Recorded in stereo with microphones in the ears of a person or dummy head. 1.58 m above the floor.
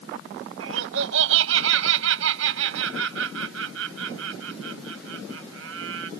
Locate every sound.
0.6 s laughter: 70° right (ahead or behind)